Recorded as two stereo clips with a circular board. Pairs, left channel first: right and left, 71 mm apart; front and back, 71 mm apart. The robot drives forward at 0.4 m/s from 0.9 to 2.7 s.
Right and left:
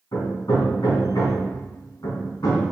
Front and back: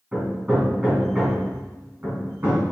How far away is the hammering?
About 1.6 m.